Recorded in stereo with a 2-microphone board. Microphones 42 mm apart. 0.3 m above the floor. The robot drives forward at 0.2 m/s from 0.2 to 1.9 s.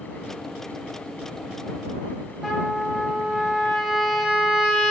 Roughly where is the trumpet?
Centre.